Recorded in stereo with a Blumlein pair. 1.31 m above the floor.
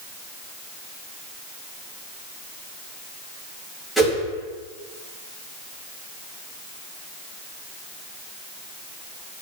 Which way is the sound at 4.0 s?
Straight ahead.